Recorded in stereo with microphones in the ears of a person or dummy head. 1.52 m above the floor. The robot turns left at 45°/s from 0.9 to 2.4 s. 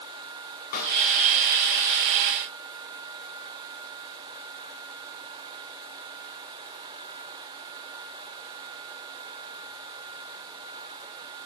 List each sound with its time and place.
0.7 s a snare drum: 45° left (ahead or behind), 4 m